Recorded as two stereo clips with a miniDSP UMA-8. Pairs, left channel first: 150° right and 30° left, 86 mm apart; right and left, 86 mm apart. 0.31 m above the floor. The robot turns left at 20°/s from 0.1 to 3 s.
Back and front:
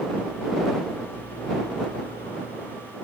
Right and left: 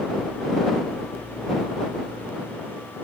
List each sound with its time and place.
Only background noise.